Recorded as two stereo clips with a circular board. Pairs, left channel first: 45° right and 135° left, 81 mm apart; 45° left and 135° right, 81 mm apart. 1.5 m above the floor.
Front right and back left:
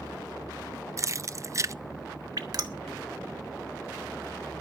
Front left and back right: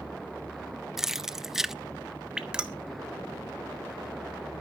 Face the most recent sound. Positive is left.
turn(degrees=145)